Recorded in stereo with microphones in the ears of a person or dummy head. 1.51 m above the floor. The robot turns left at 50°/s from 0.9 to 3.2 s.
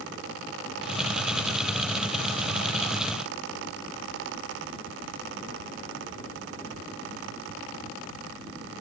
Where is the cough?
No cough in this recording.